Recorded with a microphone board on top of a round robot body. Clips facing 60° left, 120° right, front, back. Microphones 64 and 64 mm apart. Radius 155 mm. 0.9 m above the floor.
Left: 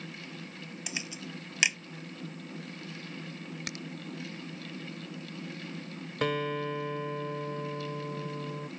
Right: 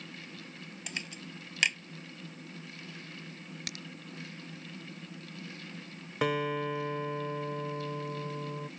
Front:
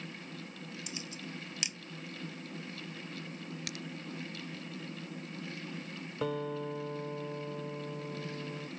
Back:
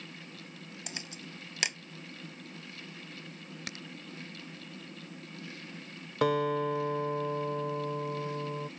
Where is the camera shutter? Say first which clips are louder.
Left 2 dB, front 1 dB; 145° left.